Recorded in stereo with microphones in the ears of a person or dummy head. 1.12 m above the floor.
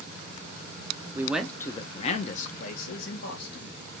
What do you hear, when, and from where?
1.1 s a man speaking: 15° right (ahead or behind), 0.5 m; by 3.8 s 65° left (ahead or behind), 1.6 m